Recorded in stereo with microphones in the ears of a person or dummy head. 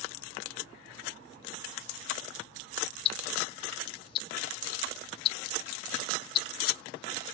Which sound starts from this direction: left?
Ticking, at 3.0 s.